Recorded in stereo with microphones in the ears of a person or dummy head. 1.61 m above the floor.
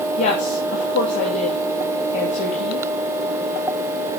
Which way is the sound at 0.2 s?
40° left (ahead or behind).